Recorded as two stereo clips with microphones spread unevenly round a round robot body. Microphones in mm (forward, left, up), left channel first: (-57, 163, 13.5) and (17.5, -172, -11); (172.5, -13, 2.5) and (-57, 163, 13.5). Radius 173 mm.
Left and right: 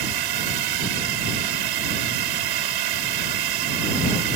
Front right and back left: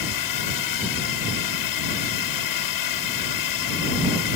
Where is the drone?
55° right.